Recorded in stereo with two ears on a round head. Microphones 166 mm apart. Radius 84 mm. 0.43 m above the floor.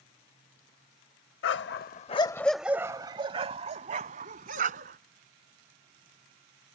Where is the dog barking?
70° left (ahead or behind); by 5.0 s 45° right (ahead or behind).